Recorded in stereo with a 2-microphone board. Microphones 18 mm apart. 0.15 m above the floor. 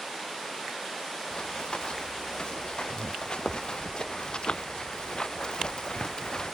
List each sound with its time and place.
1.3 s running footsteps: 50° left (ahead or behind); by 6.5 s 40° left (ahead or behind)